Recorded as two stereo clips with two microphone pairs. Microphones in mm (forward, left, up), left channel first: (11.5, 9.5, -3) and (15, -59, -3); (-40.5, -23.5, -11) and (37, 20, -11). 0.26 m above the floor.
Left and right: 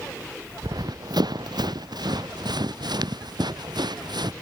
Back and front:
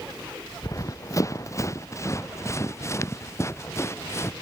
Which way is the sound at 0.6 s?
100° right.